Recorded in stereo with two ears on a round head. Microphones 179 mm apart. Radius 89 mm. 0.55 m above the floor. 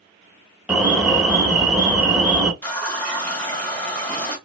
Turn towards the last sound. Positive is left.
turn(degrees=10)  # may be behind; listen again after turning